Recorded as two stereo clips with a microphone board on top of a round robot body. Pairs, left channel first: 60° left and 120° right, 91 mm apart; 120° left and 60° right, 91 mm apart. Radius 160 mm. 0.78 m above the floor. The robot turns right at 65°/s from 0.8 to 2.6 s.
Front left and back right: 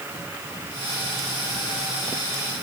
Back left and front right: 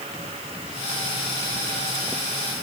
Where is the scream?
No scream in this recording.